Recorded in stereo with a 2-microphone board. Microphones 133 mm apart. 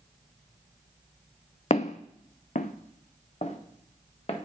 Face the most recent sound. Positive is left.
turn(degrees=50)  # may be behind; listen again after turning